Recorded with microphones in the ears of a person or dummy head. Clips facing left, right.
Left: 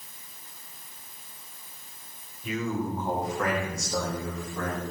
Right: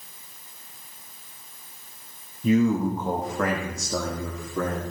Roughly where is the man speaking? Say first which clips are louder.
Right 9 dB; right.